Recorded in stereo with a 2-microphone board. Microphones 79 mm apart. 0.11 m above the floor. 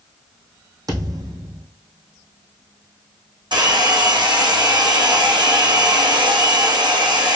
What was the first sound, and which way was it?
A thud, 50° right (ahead or behind).